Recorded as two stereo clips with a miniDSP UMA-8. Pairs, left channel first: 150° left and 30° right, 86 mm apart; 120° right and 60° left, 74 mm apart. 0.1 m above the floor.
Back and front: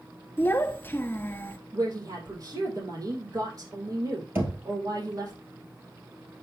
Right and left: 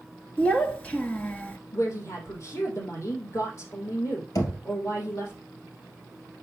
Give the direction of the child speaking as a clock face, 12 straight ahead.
6 o'clock.